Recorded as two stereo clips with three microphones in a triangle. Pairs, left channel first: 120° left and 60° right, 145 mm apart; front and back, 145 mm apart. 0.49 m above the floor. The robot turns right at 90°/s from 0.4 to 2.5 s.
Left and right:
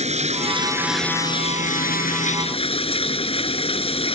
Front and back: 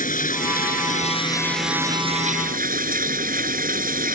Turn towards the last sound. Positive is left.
turn(degrees=170)